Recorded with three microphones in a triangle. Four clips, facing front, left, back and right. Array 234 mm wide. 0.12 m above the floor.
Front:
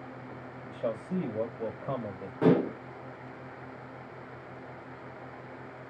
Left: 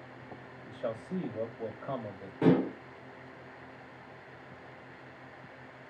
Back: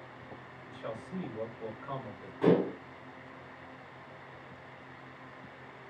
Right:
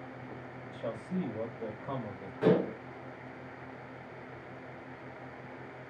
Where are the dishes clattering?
40° left, 7 m.